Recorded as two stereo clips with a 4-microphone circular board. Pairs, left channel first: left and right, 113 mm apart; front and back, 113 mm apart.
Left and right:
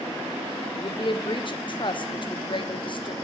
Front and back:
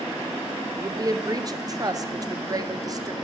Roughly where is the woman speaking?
Behind left.